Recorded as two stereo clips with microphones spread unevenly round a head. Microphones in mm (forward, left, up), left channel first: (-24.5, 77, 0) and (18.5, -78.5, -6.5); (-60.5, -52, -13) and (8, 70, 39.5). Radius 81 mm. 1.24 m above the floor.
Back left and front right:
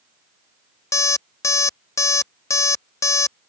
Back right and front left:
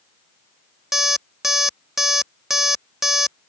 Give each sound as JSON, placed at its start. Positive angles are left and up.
{"t": 0.9, "sound": "an alarm clock", "azimuth_deg": 75}